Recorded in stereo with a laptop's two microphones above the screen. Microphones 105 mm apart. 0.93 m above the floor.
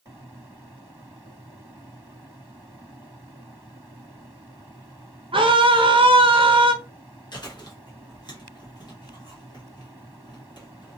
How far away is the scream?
About 0.6 m.